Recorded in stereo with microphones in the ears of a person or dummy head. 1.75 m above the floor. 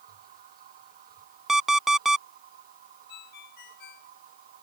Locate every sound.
0.0 s a machine running: 40° right (ahead or behind)
1.5 s an alarm clock: centre (ahead or behind)
3.1 s a ringtone: 55° left (ahead or behind)